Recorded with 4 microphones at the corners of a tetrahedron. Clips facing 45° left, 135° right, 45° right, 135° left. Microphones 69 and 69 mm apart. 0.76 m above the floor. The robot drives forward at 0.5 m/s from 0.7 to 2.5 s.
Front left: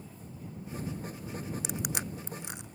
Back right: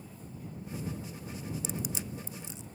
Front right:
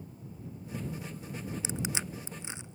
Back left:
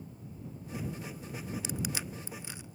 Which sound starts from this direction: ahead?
Crushing, at 1.6 s.